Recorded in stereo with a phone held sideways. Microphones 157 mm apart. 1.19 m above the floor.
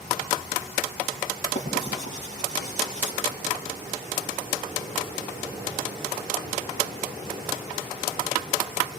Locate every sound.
1.6 s writing: 50° left (ahead or behind), 10 m